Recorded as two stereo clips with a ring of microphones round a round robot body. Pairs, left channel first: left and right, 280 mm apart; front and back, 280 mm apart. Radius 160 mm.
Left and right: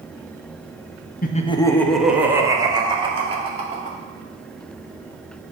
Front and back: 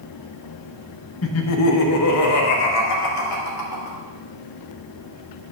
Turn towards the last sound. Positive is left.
turn(degrees=-25)